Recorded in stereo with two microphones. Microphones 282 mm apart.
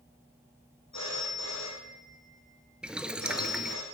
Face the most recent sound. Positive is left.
turn(degrees=-5)  # may be behind; listen again after turning